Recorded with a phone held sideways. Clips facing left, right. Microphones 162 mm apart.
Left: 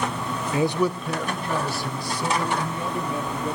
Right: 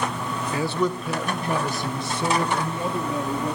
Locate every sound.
0.5 s a man speaking: 25° left (ahead or behind), 0.8 m; by 3.6 s 35° right (ahead or behind), 3 m